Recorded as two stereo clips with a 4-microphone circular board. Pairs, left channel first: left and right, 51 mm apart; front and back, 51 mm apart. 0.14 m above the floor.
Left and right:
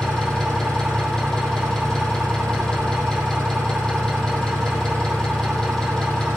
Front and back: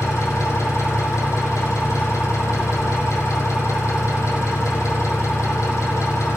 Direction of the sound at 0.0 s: 15° left.